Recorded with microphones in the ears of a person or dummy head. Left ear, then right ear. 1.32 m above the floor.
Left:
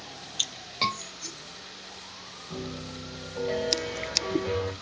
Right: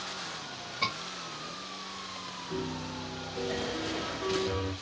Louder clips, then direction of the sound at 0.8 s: Left 4 dB; 55° left (ahead or behind).